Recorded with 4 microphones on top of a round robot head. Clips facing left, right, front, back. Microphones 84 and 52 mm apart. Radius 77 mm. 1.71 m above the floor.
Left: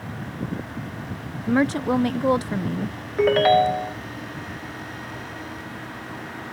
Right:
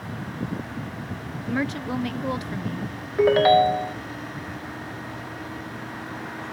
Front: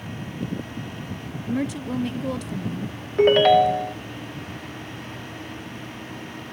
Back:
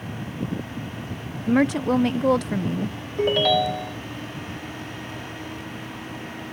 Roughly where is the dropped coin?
No dropped coin in this recording.